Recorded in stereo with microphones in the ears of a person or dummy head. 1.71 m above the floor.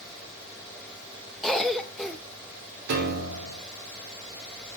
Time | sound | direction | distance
1.4 | a cough | centre (ahead or behind) | 0.6 m
2.9 | a piano | 55° right (ahead or behind) | 1.1 m